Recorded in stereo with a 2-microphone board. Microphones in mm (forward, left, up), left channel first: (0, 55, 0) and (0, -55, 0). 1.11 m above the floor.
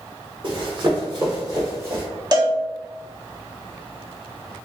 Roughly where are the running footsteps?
Right.